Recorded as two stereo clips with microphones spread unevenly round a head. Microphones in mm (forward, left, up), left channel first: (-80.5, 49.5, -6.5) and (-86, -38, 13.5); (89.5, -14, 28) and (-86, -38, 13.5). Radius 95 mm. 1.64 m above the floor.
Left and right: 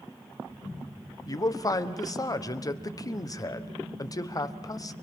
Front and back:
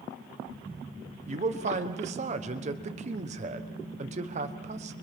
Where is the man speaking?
135° left, 1.2 m.